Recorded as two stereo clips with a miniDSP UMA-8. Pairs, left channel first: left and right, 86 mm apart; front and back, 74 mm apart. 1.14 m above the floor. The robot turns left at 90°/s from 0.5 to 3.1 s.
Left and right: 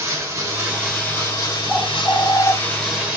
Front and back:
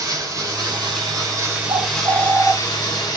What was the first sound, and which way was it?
Running water, 145° right.